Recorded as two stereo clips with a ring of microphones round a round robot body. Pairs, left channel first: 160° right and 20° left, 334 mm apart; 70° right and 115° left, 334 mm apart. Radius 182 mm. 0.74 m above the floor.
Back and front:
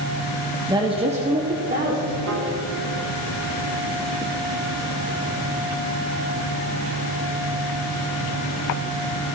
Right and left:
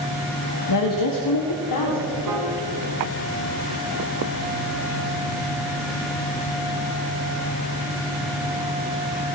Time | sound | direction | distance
0.7 | a woman speaking | 55° right | 1.3 m
2.3 | a piano | 75° left | 2.0 m